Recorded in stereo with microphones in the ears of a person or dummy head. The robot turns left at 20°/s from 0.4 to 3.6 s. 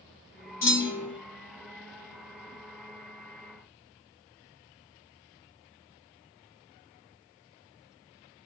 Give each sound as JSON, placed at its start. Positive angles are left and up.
{"t": 0.6, "sound": "a clunk", "side_deg": 15, "distance_m": 1.2}